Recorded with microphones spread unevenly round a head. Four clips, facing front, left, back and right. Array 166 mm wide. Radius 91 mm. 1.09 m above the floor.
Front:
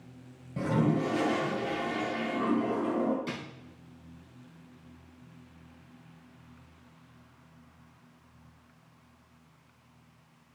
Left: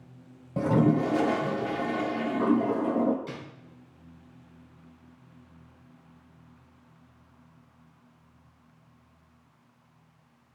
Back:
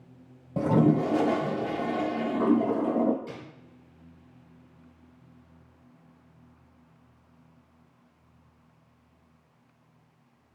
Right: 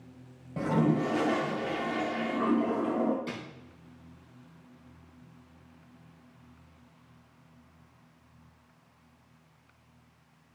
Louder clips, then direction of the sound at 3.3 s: Right 1 dB, front 3 dB; 25° right.